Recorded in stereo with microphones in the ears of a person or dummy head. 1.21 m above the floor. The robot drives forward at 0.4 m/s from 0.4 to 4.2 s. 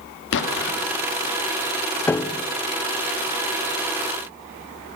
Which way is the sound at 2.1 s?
5° left (ahead or behind).